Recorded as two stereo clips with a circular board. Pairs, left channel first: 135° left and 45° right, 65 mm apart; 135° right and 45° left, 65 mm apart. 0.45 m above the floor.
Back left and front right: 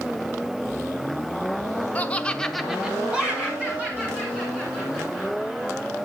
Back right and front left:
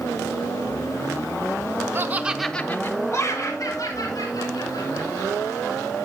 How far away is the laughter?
About 1.0 m.